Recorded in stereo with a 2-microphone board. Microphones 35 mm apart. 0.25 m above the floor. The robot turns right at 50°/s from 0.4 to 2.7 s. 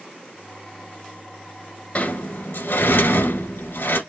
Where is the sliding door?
50° left, 1.8 m; by 4.0 s 85° left, 1.8 m.